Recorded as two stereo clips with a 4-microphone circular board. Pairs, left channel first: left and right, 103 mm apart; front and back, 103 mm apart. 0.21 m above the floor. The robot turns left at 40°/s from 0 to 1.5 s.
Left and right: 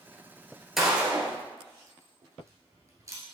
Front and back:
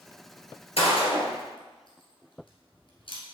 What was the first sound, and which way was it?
A gunshot, 5° right.